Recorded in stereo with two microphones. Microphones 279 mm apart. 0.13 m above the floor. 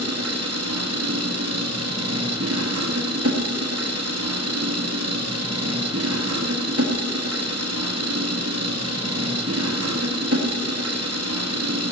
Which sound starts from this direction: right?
An engine running, at 0.0 s.